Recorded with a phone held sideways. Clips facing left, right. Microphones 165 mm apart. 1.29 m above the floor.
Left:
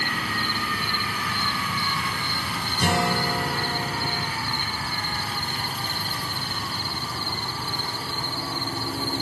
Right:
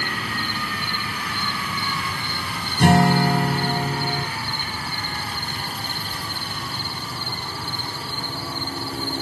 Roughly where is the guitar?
Right.